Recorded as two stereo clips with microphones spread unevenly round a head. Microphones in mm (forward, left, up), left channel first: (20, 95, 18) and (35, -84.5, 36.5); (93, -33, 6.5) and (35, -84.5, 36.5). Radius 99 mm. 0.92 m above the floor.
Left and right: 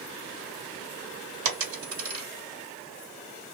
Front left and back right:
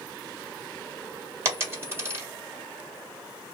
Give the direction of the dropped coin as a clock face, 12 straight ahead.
3 o'clock.